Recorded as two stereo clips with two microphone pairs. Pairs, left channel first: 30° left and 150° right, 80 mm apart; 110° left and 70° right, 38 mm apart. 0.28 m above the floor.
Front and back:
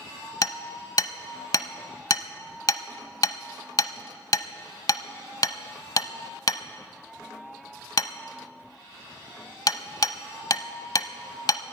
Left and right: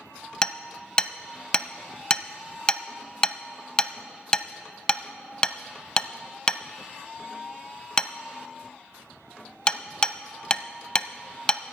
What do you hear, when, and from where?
0.4 s hammering: 50° left, 0.5 m